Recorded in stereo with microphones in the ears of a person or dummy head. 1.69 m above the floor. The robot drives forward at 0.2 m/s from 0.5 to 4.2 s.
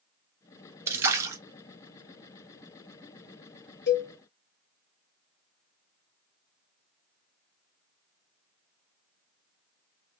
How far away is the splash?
About 0.8 m.